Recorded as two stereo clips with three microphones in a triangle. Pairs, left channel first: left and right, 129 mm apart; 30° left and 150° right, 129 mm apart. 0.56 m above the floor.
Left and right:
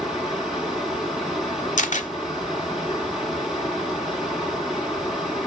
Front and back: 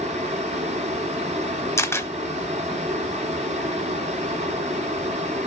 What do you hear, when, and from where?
0.0 s running water: straight behind, 2.5 m
1.8 s a camera shutter: 100° left, 0.9 m